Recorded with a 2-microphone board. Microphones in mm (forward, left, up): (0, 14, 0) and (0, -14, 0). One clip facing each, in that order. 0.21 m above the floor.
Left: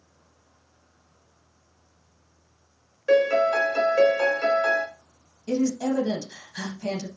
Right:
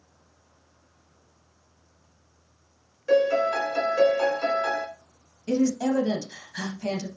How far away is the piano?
About 0.9 m.